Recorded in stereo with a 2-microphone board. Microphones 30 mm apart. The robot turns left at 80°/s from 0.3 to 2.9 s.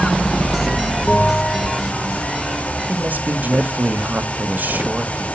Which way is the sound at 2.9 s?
70° right (ahead or behind).